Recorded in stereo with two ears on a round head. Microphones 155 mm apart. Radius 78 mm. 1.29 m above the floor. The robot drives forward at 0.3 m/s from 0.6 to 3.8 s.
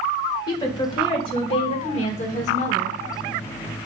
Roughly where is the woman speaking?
Left.